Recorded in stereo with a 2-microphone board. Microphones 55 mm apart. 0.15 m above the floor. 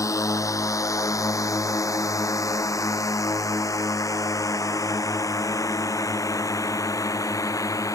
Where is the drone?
75° left (ahead or behind); by 8.0 s 85° left.